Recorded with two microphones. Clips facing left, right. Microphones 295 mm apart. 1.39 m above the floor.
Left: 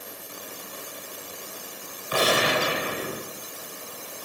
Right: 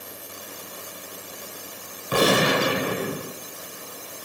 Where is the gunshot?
55° right (ahead or behind), 2.5 m.